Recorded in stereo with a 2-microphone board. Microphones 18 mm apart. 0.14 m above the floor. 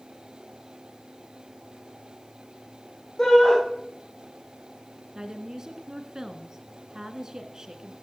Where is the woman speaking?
40° right (ahead or behind), 2 m.